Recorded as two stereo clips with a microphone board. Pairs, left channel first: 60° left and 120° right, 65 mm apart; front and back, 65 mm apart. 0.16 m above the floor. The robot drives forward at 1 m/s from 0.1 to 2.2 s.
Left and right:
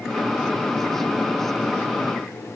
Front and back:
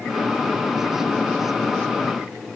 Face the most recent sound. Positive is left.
No sound to turn to.